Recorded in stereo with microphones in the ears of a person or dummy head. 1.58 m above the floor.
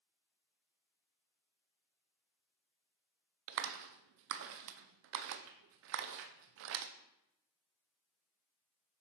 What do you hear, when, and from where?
3.5 s a clap: 75° right (ahead or behind), 0.5 m